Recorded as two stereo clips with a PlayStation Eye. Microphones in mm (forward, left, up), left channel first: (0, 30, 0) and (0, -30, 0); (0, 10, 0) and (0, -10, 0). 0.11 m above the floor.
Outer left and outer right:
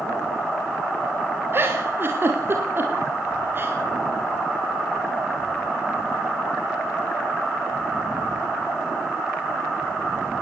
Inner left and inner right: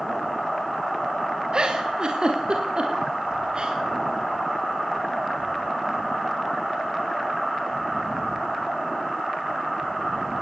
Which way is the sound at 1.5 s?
40° right (ahead or behind).